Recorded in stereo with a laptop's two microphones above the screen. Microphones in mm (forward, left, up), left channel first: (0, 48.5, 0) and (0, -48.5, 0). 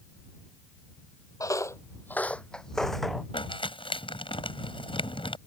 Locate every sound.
1.4 s footsteps: 35° left (ahead or behind); by 3.2 s centre (ahead or behind)
3.3 s crumpling: 65° left (ahead or behind)